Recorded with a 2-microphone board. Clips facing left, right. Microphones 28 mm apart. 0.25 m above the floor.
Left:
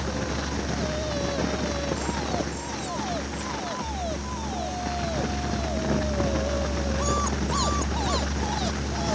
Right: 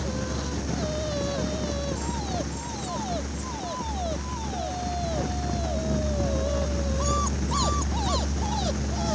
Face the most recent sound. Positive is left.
No sound to turn to.